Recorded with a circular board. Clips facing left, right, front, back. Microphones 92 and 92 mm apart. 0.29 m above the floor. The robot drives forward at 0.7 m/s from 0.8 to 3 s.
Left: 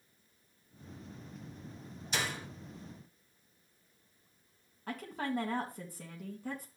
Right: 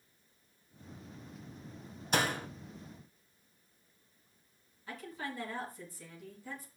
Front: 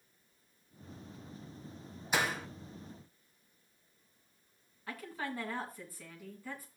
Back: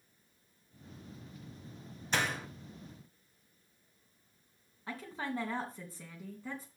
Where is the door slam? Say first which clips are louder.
Right 6 dB, front 1 dB; 75° right, 1.2 m; by 2.5 s 90° right, 1.2 m.